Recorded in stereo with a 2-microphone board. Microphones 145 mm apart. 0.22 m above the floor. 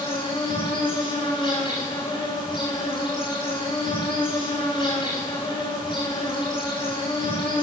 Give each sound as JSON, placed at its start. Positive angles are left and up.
{"t": 0.0, "sound": "an insect", "side_deg": 30, "distance_m": 4.0}